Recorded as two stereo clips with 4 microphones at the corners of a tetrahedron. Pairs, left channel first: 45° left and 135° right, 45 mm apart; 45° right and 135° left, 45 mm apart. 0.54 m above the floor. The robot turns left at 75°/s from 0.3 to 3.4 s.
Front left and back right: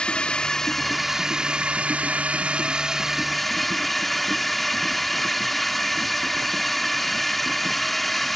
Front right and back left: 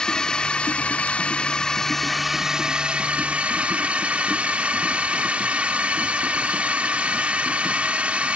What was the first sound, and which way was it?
A drone, 5° left.